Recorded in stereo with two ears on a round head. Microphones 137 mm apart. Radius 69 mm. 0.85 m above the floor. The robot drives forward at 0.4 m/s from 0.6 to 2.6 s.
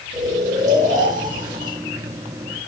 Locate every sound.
0.1 s snoring: 50° right (ahead or behind), 1.7 m; by 1.8 s 55° right (ahead or behind), 1.5 m